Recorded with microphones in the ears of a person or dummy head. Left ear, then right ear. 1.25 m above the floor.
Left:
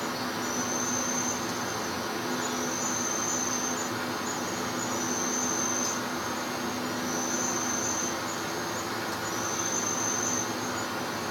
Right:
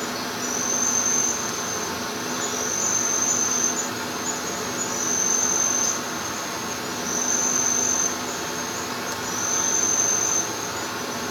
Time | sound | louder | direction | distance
0.0 | an insect | right 3 dB | 15° right (ahead or behind) | 1.3 m